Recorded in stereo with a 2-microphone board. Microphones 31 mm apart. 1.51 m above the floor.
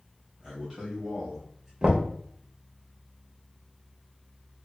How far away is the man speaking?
About 1.1 m.